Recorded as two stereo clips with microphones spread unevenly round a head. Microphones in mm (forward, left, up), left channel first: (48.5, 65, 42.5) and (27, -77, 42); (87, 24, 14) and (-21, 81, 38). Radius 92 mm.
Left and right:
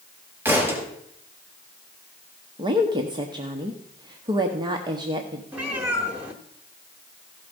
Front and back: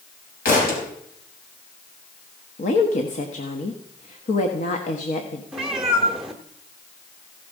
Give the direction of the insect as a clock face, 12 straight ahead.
I don't hear an insect.